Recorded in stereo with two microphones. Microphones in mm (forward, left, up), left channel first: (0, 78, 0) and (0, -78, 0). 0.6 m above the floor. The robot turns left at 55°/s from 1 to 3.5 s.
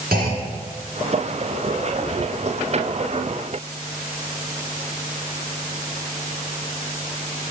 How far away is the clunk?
About 3 m.